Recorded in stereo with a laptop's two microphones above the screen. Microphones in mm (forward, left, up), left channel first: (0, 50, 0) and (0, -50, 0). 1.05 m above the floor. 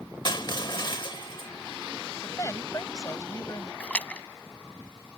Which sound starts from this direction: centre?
A splash, at 3.8 s.